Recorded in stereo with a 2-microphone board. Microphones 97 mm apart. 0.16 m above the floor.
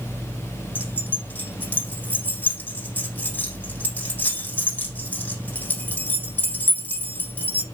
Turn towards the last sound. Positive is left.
turn(degrees=15)  # may be behind; listen again after turning